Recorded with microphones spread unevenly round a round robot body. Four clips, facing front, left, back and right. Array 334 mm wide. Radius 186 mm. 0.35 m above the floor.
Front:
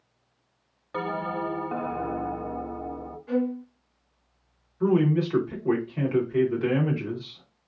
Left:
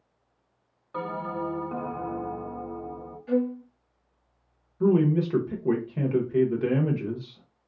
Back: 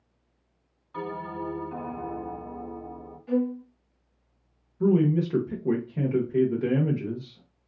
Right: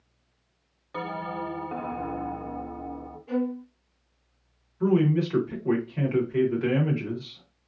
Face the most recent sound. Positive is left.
turn(degrees=140)